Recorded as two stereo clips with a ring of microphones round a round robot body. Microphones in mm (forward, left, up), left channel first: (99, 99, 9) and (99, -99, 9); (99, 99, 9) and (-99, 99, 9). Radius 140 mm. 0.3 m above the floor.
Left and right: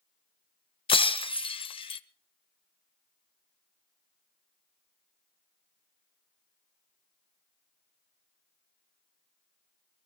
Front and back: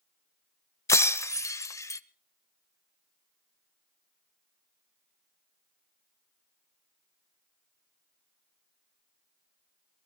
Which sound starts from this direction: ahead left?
Breaking glass, at 0.9 s.